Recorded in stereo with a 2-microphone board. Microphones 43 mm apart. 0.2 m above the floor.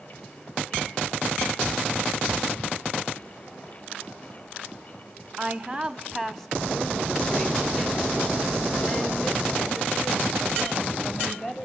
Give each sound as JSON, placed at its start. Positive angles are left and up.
{"t": 5.4, "sound": "a woman speaking", "side_deg": -20, "distance_m": 1.0}